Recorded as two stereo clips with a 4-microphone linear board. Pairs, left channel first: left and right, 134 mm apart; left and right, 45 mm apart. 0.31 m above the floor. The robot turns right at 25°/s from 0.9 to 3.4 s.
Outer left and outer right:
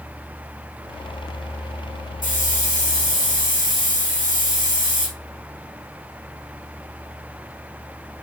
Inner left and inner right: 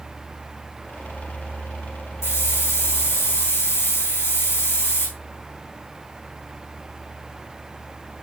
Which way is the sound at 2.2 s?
75° left (ahead or behind).